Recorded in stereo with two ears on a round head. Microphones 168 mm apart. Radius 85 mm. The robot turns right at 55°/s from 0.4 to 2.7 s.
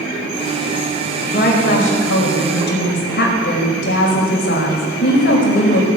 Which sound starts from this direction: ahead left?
A woman speaking, at 1.2 s.